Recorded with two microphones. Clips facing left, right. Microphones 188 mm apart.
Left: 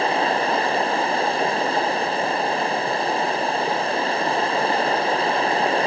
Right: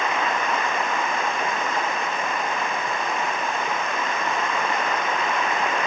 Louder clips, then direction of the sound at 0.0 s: Left 4 dB; 30° left (ahead or behind).